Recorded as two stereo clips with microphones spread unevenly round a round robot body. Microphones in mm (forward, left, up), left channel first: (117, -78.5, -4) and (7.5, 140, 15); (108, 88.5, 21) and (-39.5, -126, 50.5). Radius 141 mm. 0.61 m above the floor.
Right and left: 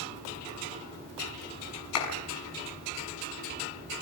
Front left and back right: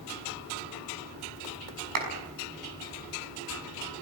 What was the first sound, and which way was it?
A clap, 100° right.